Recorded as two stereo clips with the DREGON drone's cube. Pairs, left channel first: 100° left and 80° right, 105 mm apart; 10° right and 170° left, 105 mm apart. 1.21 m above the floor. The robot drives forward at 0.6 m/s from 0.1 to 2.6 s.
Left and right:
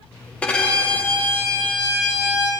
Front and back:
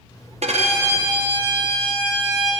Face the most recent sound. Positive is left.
turn(degrees=180)